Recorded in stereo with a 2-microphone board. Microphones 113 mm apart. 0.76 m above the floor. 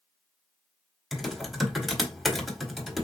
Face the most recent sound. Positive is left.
turn(degrees=0)  # may be behind; listen again after turning